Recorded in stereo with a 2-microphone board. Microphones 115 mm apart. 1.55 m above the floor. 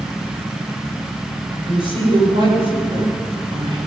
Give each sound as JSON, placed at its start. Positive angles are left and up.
{"t": 1.5, "sound": "a woman speaking", "side_deg": -50, "distance_m": 6.5}